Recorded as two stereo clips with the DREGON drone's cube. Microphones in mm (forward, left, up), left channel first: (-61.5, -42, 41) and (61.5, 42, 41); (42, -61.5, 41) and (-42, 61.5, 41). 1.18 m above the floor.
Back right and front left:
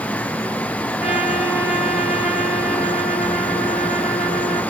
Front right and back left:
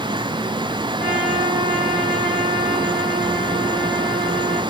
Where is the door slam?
No door slam in this recording.